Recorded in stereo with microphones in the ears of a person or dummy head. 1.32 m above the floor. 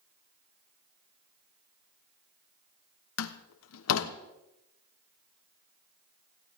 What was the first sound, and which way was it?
A door slam, 75° left (ahead or behind).